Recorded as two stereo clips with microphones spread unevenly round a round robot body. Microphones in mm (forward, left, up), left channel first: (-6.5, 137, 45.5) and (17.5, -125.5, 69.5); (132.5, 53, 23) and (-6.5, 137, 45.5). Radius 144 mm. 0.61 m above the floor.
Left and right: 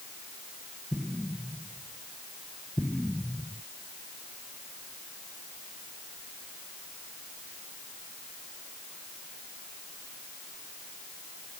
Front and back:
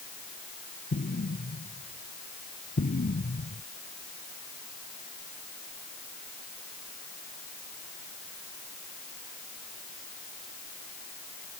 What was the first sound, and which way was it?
An explosion, 5° left.